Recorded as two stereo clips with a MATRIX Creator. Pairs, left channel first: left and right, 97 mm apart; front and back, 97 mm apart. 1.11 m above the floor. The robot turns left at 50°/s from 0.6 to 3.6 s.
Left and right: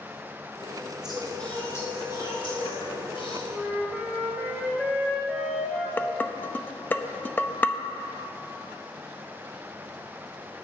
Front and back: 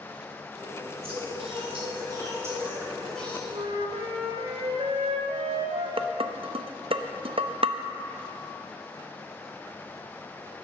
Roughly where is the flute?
Behind.